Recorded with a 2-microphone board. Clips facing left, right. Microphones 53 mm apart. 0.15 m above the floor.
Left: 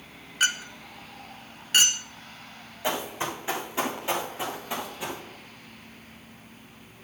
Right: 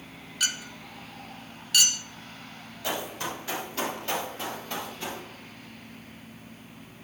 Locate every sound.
0.4 s a clink: 35° left (ahead or behind), 0.8 m
2.8 s running footsteps: 25° left (ahead or behind), 7 m; by 5.2 s 10° left (ahead or behind), 7.5 m